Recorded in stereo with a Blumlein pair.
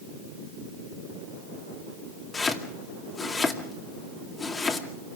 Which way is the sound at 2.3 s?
15° left.